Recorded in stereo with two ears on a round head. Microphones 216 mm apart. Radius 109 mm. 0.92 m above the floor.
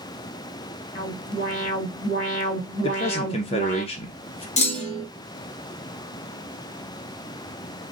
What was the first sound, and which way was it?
An alarm, 35° left (ahead or behind).